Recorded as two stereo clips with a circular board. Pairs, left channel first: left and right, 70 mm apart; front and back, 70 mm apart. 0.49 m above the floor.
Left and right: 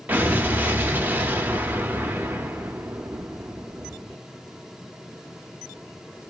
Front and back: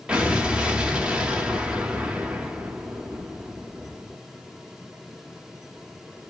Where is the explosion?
120° right, 0.5 m.